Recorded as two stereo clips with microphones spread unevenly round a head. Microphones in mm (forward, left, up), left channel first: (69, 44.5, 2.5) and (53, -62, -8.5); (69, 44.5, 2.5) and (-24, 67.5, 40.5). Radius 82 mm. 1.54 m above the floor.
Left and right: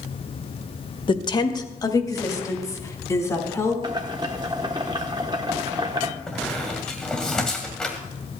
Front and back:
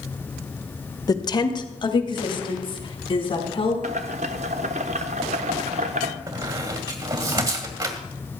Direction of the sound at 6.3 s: 160° left.